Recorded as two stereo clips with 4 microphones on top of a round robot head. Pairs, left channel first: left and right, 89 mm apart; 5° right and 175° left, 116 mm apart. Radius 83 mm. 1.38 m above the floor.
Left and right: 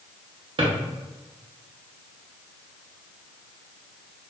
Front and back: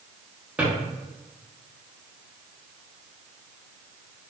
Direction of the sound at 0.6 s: 100° right.